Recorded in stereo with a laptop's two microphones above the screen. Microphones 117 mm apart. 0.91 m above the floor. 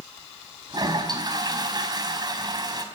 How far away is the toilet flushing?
About 4.5 m.